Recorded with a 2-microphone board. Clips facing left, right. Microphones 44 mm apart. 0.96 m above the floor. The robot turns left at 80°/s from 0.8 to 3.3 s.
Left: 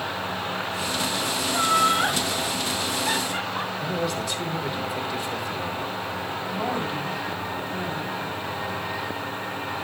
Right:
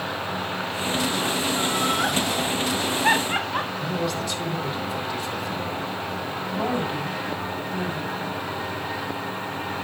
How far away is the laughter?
About 1.4 m.